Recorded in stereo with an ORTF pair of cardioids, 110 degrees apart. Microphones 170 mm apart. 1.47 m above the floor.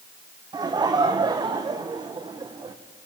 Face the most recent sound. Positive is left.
turn(degrees=-25)